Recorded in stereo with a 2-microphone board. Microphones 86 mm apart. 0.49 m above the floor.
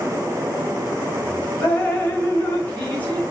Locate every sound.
1.6 s dripping: 20° left (ahead or behind), 1.3 m